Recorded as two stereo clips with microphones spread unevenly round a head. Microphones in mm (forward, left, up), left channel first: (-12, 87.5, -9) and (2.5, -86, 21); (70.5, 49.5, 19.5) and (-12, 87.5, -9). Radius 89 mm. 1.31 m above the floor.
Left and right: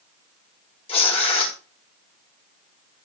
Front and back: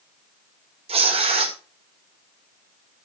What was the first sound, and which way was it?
Tearing paper, 155° left.